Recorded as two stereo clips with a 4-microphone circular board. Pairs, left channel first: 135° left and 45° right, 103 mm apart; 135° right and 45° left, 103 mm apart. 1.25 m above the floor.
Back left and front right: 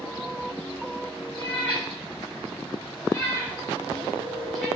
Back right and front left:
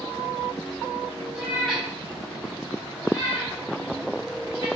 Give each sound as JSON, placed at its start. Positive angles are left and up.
{"t": 1.4, "sound": "a cat meowing", "azimuth_deg": 125, "distance_m": 1.6}